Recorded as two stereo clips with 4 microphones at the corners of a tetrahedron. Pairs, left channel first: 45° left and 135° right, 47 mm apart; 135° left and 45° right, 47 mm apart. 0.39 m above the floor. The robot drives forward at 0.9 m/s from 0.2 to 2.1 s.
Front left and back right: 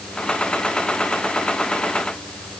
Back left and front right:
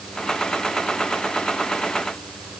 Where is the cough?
No cough in this recording.